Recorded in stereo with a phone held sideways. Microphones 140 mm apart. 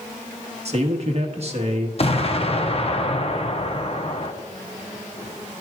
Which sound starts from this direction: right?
A man speaking, at 0.7 s.